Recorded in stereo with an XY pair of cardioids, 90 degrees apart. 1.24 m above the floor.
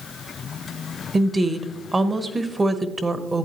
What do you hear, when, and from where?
1.1 s a woman speaking: 30° right, 1.0 m